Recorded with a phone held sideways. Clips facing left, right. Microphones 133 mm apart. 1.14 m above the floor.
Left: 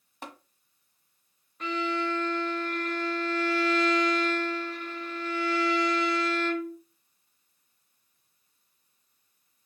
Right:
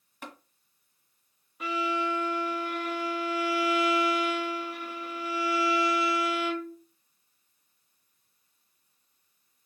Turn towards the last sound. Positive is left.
turn(degrees=-10)  # may be behind; listen again after turning